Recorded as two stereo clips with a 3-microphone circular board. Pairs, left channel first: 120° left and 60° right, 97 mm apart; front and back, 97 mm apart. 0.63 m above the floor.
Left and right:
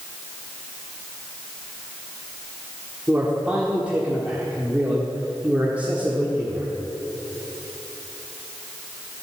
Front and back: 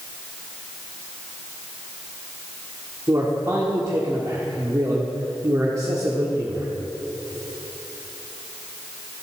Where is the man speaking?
130° right, 1.4 m.